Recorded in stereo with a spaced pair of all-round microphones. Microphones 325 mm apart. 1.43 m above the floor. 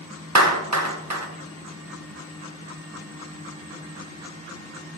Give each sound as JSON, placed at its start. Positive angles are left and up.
{"t": 0.3, "sound": "a clap", "side_deg": -55, "distance_m": 1.0}